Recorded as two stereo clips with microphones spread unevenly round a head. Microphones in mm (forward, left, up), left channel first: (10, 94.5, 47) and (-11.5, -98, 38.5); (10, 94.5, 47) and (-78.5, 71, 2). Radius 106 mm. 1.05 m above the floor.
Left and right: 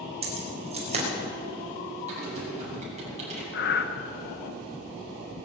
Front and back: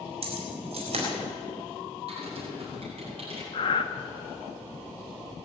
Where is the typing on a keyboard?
155° right, 7 m.